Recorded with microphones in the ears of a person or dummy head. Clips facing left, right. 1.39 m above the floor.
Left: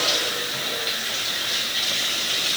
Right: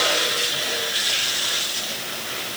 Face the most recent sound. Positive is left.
No sound to turn to.